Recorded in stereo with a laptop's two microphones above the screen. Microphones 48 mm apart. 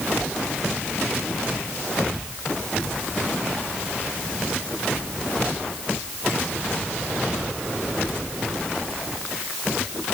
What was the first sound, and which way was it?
Only background noise.